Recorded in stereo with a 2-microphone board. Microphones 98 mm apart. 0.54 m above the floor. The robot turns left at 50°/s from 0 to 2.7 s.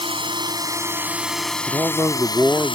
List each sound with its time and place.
0.0 s a drone: 110° right; by 2.8 s 115° left
1.7 s a man speaking: 30° right (ahead or behind); by 2.8 s 15° right (ahead or behind)